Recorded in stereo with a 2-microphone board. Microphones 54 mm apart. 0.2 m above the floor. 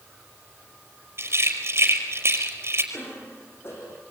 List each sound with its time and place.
1.2 s a rattle: 55° right (ahead or behind), 5 m
2.9 s a cough: 55° left (ahead or behind), 9.5 m